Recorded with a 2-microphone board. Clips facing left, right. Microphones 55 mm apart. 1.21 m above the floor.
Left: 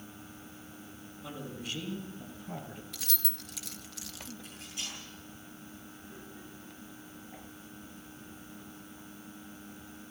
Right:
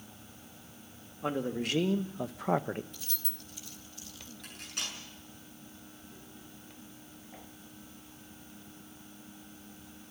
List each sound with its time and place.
1.2 s a man speaking: 55° right (ahead or behind), 2.0 m; by 2.8 s 50° right (ahead or behind), 1.0 m
2.9 s keys jangling: 75° left (ahead or behind), 1.0 m
4.4 s cutlery clinking: 60° right (ahead or behind), 7 m